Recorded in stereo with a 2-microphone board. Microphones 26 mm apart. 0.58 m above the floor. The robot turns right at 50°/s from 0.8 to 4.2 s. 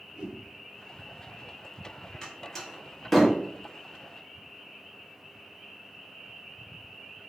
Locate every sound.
0.1 s a whoosh: 40° right (ahead or behind), 0.5 m
2.2 s a door slam: 25° left (ahead or behind), 0.8 m; by 3.4 s centre (ahead or behind), 0.8 m